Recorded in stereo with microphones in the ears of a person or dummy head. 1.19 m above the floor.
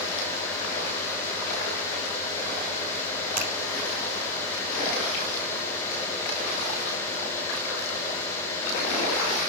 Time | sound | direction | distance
3.4 | a finger snap | 40° right (ahead or behind) | 4.5 m